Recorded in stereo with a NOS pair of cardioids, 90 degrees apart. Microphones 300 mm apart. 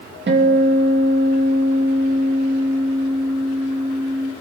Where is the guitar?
35° right, 2.5 m.